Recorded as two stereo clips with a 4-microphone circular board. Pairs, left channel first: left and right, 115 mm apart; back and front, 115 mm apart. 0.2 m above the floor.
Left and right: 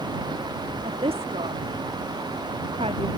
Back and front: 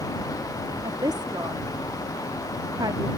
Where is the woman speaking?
55° right.